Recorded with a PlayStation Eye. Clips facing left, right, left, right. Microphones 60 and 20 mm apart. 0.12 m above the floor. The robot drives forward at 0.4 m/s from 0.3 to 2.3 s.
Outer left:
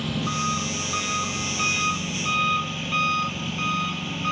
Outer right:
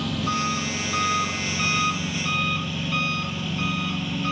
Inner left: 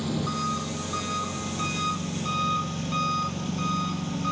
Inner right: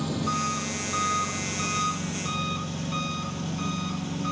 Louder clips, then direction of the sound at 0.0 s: Outer right 1 dB, inner right 1 dB; 5° left (ahead or behind).